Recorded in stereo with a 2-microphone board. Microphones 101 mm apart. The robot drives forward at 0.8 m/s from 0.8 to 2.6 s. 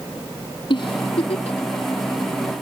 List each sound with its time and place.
0.7 s a giggle: 55° left (ahead or behind), 0.9 m; by 1.6 s 70° left (ahead or behind), 0.8 m